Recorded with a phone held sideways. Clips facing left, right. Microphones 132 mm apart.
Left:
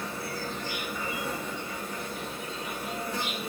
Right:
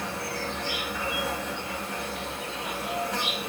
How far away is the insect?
About 0.7 m.